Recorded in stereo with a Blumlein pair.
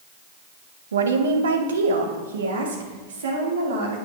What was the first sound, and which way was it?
A woman speaking, 70° right.